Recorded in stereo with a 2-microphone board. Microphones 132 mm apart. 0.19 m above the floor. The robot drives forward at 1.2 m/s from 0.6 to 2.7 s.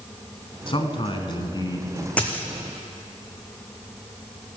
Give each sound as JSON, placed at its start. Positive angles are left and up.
{"t": 0.7, "sound": "a man speaking", "side_deg": 40, "distance_m": 1.5}
{"t": 2.2, "sound": "a dropped coin", "side_deg": 10, "distance_m": 1.7}